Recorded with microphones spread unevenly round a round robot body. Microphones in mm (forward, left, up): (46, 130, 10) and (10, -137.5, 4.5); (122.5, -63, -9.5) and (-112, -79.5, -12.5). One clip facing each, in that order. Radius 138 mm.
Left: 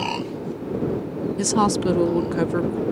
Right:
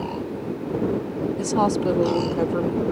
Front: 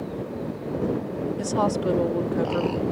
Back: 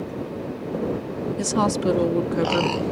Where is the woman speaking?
130° left.